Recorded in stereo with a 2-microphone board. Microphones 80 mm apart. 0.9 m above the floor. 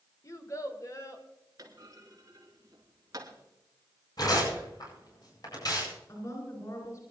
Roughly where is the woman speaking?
Left.